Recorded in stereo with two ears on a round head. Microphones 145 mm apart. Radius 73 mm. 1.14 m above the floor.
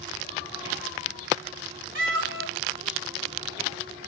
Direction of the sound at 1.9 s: 65° right (ahead or behind).